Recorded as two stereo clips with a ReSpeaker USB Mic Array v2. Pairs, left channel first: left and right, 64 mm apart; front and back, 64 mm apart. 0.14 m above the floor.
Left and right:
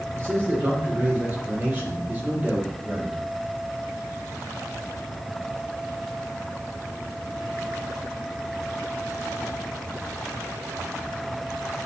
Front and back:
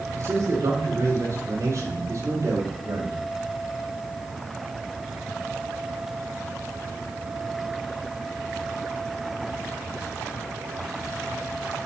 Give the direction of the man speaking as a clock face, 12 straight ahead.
5 o'clock.